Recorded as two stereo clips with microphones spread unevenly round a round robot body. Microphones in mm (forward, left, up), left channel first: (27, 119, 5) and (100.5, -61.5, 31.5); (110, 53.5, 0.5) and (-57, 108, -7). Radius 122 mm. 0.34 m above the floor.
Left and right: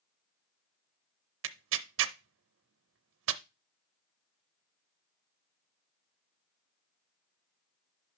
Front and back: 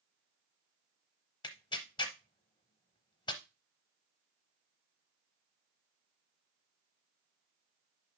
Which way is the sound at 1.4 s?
90° right.